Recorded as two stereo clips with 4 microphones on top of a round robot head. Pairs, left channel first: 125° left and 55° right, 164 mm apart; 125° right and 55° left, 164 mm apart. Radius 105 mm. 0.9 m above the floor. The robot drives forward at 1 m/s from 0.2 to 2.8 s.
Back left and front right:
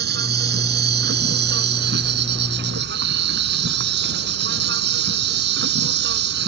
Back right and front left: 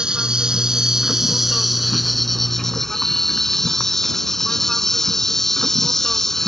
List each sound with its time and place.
0.0 s an insect: 30° right; by 6.5 s 35° right